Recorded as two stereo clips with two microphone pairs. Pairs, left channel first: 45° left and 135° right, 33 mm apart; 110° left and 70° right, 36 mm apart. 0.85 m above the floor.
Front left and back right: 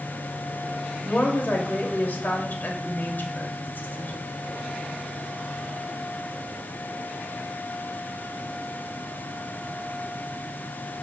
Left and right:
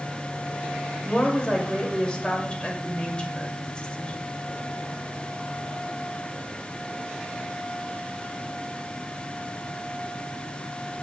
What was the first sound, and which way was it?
A woman speaking, 50° left.